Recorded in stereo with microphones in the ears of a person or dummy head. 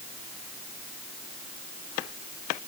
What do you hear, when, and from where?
Only background noise.